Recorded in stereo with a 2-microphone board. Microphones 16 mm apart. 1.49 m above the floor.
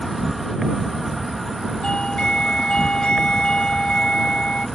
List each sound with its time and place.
0.0 s an insect: 5° right (ahead or behind)
1.8 s a doorbell: 65° left (ahead or behind)